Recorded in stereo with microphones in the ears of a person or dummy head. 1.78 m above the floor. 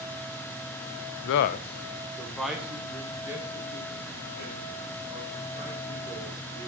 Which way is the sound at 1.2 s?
70° left (ahead or behind).